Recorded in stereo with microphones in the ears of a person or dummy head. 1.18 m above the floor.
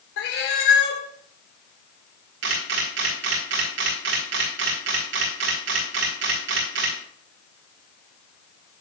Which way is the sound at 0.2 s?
65° left (ahead or behind).